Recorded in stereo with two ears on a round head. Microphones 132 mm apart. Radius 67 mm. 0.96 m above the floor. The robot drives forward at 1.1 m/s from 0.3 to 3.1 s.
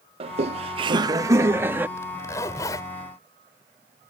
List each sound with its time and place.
0.2 s laughter: 40° right (ahead or behind); by 1.9 s 15° right (ahead or behind)
2.0 s a zipper: 20° left (ahead or behind); by 2.9 s 25° left (ahead or behind)